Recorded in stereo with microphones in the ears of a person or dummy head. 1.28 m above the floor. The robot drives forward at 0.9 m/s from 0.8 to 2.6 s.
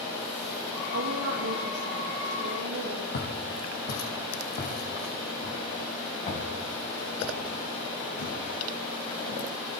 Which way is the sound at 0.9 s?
85° right.